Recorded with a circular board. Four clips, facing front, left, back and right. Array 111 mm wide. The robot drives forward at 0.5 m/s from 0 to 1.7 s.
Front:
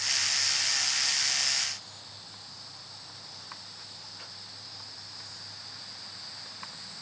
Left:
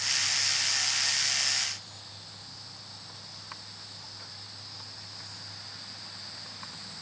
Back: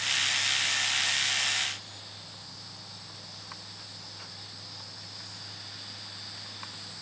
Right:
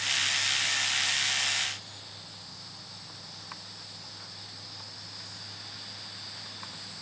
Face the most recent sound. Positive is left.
No sound to turn to.